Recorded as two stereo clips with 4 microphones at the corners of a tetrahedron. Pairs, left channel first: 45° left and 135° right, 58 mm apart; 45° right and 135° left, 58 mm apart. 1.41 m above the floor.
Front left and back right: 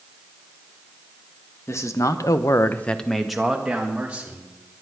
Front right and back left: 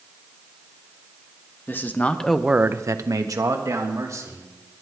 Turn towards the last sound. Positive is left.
turn(degrees=155)